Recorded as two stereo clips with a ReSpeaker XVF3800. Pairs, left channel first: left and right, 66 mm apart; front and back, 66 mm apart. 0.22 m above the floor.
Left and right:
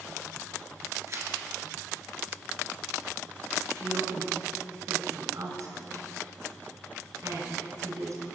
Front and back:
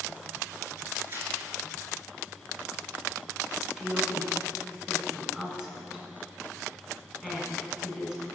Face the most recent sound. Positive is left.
turn(degrees=-100)